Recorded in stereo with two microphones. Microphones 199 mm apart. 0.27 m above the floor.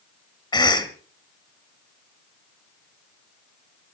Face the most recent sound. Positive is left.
turn(degrees=20)  # may be behind; listen again after turning